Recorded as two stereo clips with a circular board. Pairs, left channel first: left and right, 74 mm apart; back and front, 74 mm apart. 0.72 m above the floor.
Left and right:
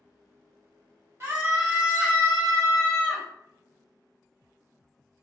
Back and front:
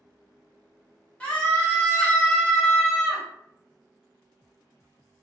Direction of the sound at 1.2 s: 115° right.